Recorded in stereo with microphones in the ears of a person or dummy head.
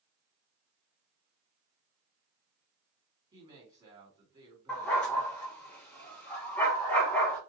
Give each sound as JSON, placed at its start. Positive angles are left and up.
{"t": 3.3, "sound": "a woman speaking", "side_deg": -20, "distance_m": 2.5}
{"t": 4.7, "sound": "a dog barking", "side_deg": 10, "distance_m": 2.0}